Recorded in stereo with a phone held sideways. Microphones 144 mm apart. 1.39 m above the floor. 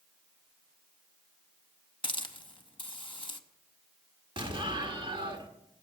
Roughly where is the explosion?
Right.